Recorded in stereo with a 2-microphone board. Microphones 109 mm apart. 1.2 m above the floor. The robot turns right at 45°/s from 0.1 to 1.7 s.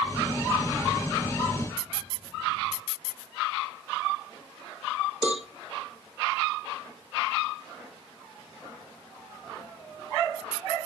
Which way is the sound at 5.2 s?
10° right (ahead or behind).